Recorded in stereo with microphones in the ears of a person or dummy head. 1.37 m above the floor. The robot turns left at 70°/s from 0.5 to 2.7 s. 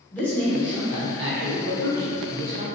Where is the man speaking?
10° left, 0.9 m; by 2.6 s 140° right, 0.9 m.